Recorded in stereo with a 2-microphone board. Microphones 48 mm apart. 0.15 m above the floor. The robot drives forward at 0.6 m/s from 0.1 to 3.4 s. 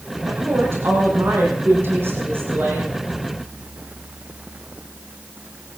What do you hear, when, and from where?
0.3 s a woman speaking: 60° right (ahead or behind), 6 m; by 2.9 s 50° right (ahead or behind), 7 m